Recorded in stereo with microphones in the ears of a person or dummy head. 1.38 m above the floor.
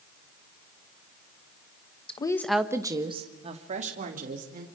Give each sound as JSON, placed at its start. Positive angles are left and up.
{"t": 2.1, "sound": "a woman speaking", "side_deg": 30, "distance_m": 1.3}